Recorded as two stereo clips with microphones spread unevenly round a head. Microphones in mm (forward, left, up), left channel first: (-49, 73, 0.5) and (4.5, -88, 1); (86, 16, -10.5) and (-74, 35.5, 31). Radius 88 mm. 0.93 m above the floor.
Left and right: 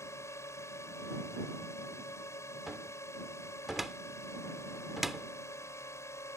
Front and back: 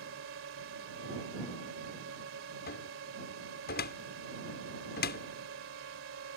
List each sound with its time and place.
0.0 s a drone: straight behind
2.7 s a cupboard door: 15° left